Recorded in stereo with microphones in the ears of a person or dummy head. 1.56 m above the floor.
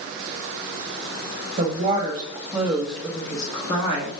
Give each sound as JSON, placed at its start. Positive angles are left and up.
{"t": 1.6, "sound": "a woman speaking", "side_deg": -35, "distance_m": 1.2}